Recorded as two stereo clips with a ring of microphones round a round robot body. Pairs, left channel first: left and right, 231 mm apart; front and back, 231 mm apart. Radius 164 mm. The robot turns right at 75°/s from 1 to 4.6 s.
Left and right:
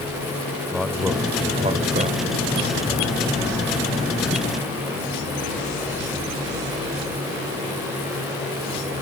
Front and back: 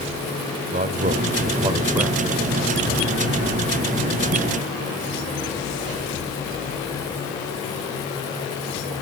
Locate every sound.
0.7 s a man speaking: straight behind, 1.4 m; by 2.2 s 90° right, 1.4 m